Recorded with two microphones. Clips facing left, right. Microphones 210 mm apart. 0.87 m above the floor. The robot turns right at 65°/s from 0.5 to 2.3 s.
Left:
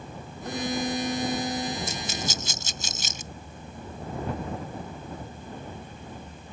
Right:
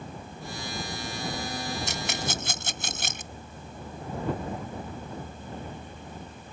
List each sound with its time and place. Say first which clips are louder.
0.5 s a violin: left 9 dB; 85° left; by 1.8 s 165° left
1.9 s a rattle: even; 85° right; by 3.3 s 65° right (ahead or behind)